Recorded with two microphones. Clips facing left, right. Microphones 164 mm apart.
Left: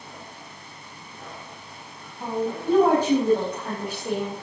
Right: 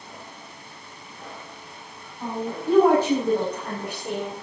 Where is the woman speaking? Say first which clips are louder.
Left 2 dB; 15° left (ahead or behind), 6.5 m; by 4.3 s 5° left (ahead or behind), 4.5 m.